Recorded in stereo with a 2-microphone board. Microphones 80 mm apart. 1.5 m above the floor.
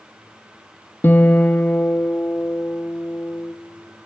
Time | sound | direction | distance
1.0 | a guitar | 25° left (ahead or behind) | 1.2 m